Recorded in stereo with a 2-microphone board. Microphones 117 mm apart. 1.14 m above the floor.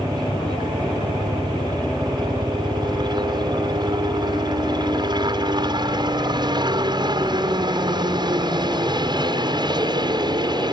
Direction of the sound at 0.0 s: 40° right (ahead or behind).